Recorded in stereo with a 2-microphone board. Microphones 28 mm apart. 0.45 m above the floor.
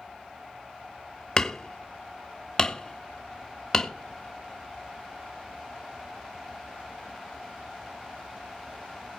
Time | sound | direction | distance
1.4 | hammering | 25° left (ahead or behind) | 1.1 m